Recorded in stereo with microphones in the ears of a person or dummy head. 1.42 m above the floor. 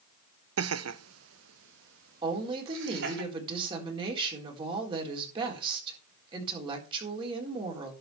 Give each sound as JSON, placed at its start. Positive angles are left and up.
{"t": 0.6, "sound": "laughter", "side_deg": -70, "distance_m": 0.8}
{"t": 2.2, "sound": "a woman speaking", "side_deg": -30, "distance_m": 4.0}